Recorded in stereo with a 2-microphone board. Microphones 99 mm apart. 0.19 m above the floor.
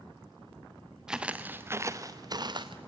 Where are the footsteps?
5° right (ahead or behind), 1.0 m; by 2.8 s 55° right (ahead or behind), 1.1 m.